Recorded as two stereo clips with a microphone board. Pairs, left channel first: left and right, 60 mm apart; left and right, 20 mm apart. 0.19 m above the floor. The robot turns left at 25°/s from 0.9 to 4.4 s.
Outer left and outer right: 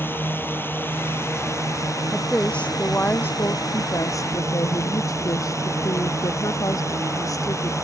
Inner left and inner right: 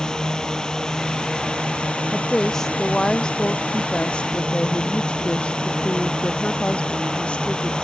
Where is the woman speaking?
170° left; by 7.7 s 115° left.